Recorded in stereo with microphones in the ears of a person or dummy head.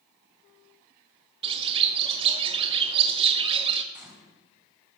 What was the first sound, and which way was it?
A bird, 30° right (ahead or behind).